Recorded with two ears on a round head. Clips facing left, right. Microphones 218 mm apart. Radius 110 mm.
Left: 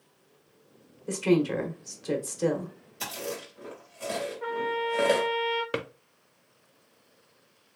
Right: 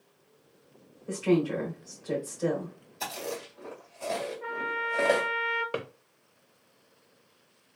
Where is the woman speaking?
50° left (ahead or behind), 1.2 m.